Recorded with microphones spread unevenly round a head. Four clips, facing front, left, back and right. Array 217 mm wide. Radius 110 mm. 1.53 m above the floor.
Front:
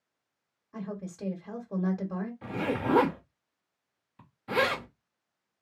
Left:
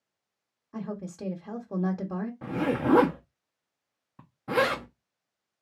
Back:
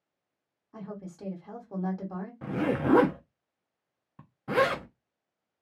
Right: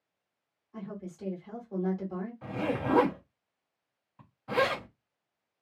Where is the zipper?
135° left, 0.9 m.